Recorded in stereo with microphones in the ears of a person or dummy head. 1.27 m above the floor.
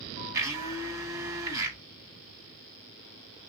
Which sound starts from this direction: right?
A blender, at 0.3 s.